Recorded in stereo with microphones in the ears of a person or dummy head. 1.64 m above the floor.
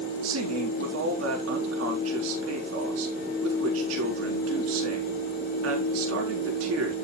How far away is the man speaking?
About 4 m.